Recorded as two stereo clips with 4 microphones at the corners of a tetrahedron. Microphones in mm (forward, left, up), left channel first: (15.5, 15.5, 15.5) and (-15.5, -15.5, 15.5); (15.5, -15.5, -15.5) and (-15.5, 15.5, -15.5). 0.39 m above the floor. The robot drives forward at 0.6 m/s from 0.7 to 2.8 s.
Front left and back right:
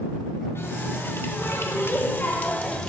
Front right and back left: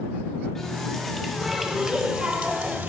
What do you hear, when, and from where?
0.6 s a running tap: 35° left, 1.3 m; by 2.9 s 110° left, 0.8 m